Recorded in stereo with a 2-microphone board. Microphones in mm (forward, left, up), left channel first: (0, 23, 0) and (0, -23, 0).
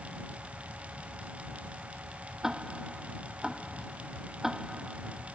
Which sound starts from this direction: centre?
Ticking, at 2.4 s.